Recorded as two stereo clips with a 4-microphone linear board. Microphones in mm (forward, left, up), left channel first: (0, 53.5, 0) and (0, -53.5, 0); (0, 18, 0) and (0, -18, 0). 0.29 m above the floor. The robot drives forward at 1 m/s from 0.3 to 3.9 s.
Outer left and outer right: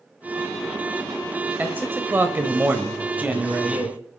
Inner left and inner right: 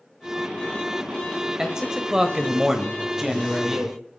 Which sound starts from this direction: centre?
A man speaking, at 1.6 s.